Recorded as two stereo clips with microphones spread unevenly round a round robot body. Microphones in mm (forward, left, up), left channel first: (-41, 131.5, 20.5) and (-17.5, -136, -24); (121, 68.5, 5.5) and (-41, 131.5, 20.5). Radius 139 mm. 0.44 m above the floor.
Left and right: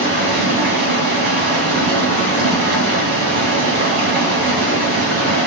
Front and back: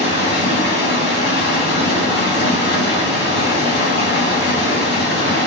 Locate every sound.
0.0 s running water: 25° right, 3 m